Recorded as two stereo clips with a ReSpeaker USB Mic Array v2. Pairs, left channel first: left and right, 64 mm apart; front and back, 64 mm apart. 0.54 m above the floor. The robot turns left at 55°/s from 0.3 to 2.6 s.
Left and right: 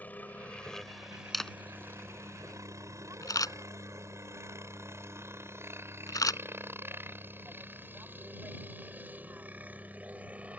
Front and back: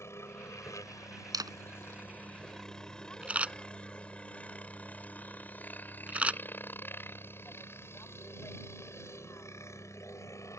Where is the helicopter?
30° left; by 10.6 s 25° right.